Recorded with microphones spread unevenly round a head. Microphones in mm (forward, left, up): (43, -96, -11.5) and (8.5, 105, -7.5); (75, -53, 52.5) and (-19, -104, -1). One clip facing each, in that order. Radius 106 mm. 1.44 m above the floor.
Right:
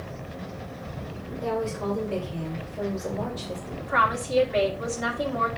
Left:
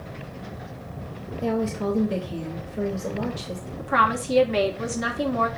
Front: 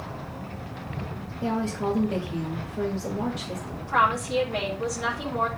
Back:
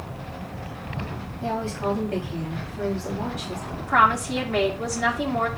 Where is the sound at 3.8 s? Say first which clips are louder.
Left 4 dB, back 3 dB; 140° left, 2 m.